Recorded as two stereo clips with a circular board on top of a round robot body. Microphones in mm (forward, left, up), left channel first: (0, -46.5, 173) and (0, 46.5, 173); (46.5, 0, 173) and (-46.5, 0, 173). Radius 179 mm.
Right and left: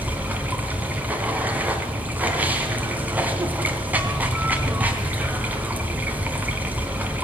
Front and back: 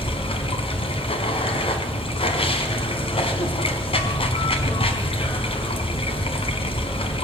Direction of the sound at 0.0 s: 15° left.